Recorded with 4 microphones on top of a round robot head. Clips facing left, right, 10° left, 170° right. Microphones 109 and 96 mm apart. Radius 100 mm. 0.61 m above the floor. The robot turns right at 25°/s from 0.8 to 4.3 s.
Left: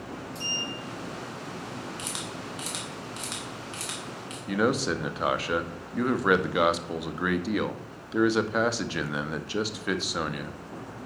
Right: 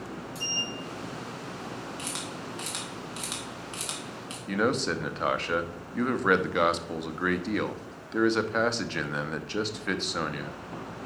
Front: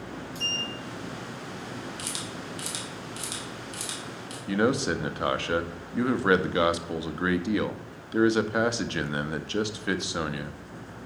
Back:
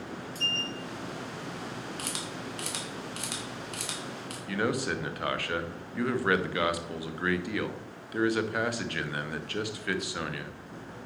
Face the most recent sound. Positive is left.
turn(degrees=15)